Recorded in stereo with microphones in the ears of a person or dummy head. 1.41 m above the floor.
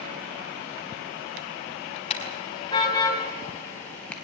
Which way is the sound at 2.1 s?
30° left (ahead or behind).